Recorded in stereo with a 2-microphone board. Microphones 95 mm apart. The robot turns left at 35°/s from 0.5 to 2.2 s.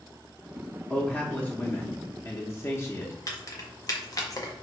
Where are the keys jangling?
40° left (ahead or behind), 0.7 m.